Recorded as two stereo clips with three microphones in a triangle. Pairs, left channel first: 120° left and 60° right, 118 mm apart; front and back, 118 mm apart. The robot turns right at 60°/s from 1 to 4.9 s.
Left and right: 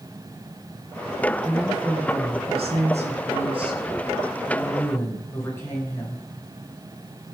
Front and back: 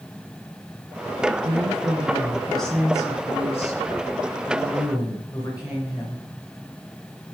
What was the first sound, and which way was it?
A woman speaking, 155° right.